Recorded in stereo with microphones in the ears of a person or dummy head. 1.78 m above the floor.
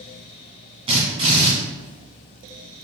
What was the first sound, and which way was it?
A drill, 30° right (ahead or behind).